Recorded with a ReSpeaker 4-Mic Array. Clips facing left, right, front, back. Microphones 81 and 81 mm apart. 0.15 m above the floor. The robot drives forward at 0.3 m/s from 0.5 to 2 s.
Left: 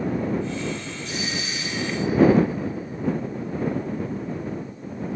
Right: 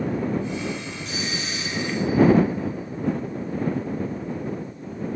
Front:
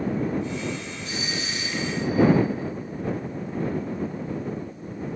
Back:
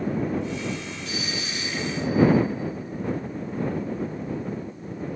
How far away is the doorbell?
About 5 m.